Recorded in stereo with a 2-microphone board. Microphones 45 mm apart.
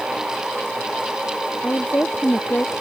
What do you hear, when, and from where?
1.6 s a woman speaking: 40° left (ahead or behind)